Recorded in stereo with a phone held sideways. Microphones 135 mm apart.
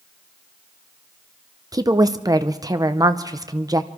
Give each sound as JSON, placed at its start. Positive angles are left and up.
{"t": 1.7, "sound": "a woman speaking", "side_deg": -30, "distance_m": 0.7}